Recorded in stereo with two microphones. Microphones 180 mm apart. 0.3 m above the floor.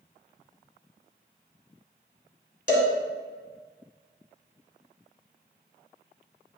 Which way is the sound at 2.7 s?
50° left (ahead or behind).